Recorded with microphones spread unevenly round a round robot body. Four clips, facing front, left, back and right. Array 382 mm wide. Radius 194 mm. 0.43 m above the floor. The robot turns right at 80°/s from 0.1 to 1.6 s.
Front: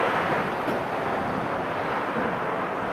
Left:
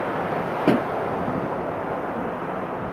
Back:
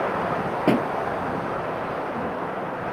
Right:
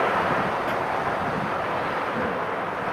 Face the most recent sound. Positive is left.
turn(degrees=-155)